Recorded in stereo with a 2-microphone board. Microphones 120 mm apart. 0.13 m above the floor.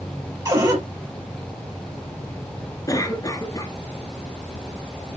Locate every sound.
0.5 s a cupboard door: 30° right (ahead or behind), 3 m
2.9 s a cough: 30° left (ahead or behind), 1.7 m